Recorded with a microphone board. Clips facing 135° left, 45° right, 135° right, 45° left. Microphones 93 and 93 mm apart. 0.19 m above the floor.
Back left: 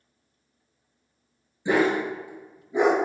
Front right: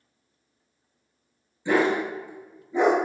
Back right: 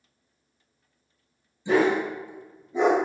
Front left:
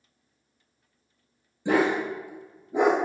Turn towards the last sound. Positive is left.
turn(degrees=65)